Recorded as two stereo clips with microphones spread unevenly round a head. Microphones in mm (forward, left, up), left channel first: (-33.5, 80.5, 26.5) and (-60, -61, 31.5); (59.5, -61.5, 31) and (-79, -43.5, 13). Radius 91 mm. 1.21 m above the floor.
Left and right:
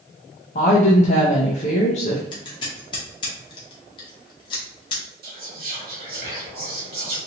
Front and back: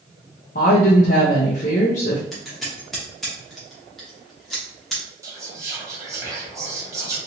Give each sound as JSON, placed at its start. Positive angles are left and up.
{"t": 0.6, "sound": "a woman speaking", "azimuth_deg": 35, "distance_m": 0.5}
{"t": 2.3, "sound": "scissors", "azimuth_deg": 65, "distance_m": 0.7}
{"t": 5.2, "sound": "whispering", "azimuth_deg": -120, "distance_m": 1.3}